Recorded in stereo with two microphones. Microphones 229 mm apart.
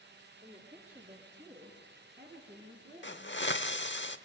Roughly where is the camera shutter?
I don't hear a camera shutter.